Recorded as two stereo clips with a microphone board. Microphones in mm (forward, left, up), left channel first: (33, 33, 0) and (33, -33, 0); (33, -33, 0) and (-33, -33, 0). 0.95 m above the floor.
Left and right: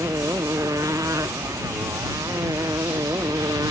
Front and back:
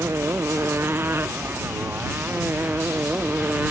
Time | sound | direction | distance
0.0 | a motorcycle | 130° right | ?